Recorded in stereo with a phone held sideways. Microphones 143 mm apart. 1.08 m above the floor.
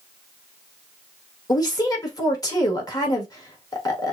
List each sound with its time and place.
1.5 s a woman speaking: 25° left (ahead or behind), 1.3 m